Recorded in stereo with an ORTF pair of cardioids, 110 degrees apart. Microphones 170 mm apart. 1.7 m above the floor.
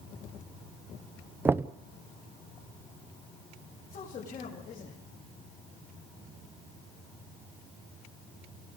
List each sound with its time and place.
1.4 s knocking: 15° right, 0.9 m
3.9 s a man speaking: 55° left, 7 m